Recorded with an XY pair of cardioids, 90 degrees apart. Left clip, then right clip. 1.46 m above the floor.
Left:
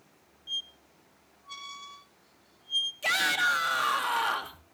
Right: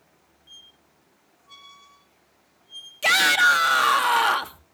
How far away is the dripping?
I don't hear dripping.